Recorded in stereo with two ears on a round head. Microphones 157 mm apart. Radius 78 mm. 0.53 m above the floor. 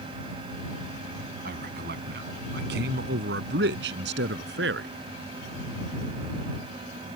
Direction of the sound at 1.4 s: 60° right (ahead or behind).